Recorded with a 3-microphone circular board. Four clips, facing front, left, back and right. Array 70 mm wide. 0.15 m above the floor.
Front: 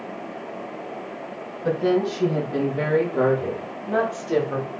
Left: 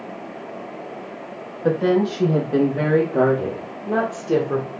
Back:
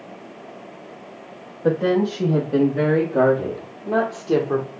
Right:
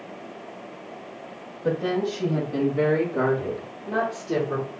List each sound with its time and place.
1.6 s a woman speaking: 130° left, 4.5 m; by 4.7 s 150° left, 3.5 m